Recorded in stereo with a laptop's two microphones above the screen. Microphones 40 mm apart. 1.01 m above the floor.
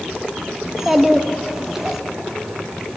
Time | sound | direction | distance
0.6 | a child speaking | 10° right (ahead or behind) | 1.0 m